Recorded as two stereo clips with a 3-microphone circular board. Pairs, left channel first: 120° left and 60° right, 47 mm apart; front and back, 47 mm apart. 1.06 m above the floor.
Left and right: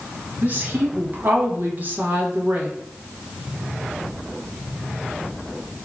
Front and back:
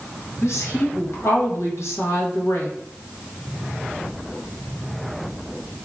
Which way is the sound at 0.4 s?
10° right.